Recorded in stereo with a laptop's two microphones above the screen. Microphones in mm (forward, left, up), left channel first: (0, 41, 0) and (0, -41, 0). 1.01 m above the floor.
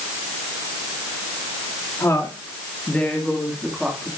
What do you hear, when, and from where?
2.0 s a woman speaking: 35° left (ahead or behind), 2.5 m; by 4.1 s 15° right (ahead or behind), 2.5 m